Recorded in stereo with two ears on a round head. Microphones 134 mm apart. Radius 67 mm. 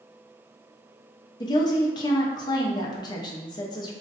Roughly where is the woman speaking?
Left.